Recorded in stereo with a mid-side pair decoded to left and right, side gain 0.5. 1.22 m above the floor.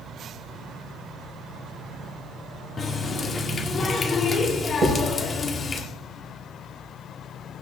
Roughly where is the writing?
Ahead right.